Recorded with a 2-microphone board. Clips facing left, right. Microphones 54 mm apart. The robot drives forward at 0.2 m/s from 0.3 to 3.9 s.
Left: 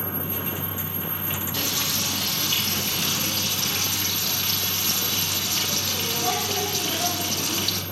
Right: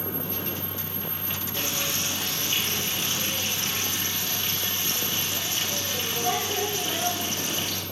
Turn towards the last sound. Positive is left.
turn(degrees=75)  # may be behind; listen again after turning